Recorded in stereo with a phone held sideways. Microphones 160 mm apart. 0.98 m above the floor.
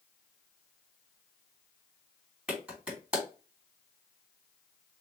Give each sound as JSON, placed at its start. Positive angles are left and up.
{"t": 2.5, "sound": "a clap", "side_deg": -5, "distance_m": 2.5}